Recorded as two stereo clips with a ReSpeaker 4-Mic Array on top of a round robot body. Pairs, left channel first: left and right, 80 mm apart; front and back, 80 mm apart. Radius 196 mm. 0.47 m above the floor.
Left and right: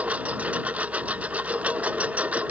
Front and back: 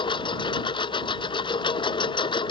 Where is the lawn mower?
15° right.